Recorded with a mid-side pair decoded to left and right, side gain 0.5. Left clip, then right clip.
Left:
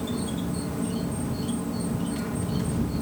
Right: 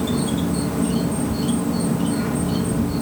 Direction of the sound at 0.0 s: 45° right.